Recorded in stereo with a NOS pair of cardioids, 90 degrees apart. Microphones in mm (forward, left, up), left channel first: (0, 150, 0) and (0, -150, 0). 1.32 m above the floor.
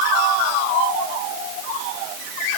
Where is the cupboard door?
No cupboard door in this recording.